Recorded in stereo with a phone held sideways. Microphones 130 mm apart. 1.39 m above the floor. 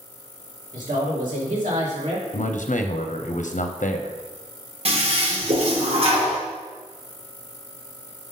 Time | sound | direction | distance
0.7 | a man speaking | 85° right | 2.5 m
2.3 | a man speaking | 70° left (ahead or behind) | 0.6 m
4.8 | a toilet flushing | 45° right (ahead or behind) | 1.4 m